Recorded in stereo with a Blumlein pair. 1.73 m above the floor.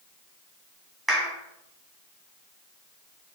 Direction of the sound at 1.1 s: 5° right.